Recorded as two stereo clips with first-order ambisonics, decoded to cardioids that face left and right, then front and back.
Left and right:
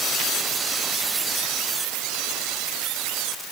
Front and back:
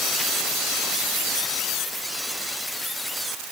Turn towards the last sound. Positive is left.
No sound to turn to.